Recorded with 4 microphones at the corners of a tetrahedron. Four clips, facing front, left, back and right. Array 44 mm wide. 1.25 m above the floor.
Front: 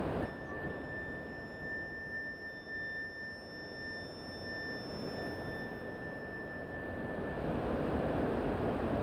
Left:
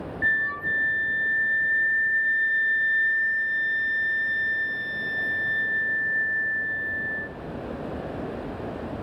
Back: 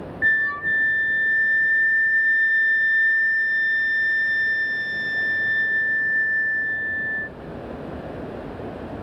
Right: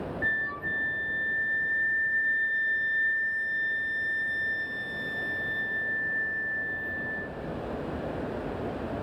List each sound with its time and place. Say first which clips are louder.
0.2 s a flute: left 6 dB, back 21 dB; 170° left, 0.5 m